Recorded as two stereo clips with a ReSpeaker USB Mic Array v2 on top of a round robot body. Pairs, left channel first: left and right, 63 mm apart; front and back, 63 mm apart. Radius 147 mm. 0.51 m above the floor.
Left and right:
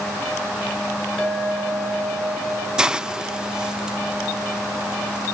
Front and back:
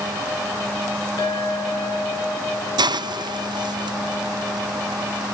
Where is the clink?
Straight ahead, 7 m.